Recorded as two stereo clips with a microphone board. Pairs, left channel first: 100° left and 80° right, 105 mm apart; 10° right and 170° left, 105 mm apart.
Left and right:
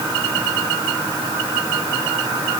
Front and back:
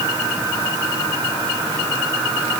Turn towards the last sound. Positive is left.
No sound to turn to.